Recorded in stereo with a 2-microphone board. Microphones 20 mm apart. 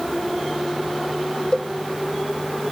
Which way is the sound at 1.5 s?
40° left (ahead or behind).